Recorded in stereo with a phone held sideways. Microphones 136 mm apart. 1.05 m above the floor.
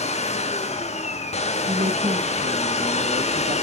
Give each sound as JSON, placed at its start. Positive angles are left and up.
{"t": 0.0, "sound": "a machine running", "side_deg": 50, "distance_m": 1.5}
{"t": 1.7, "sound": "a woman speaking", "side_deg": -60, "distance_m": 1.5}